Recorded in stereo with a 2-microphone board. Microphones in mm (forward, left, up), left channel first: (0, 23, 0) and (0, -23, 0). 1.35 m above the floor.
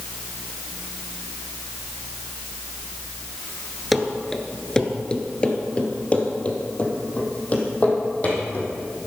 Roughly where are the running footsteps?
Centre.